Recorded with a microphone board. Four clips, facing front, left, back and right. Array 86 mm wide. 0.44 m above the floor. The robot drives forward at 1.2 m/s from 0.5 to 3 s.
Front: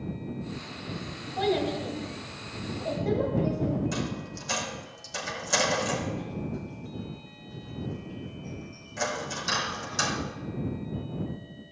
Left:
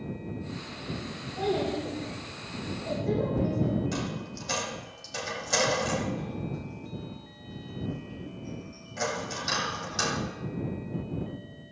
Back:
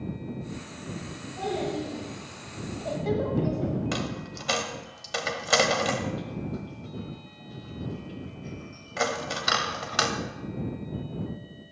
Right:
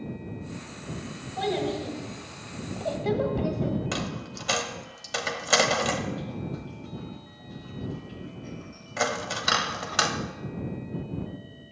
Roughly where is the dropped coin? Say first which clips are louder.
Right 1 dB, back 1 dB; behind right.